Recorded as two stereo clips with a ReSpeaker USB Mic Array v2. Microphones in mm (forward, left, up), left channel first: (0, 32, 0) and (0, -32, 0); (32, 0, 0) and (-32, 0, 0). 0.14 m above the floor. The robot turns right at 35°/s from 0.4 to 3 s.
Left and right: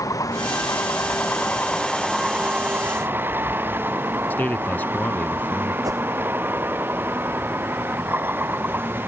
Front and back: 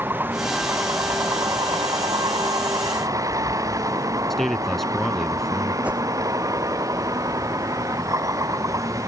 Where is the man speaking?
85° left.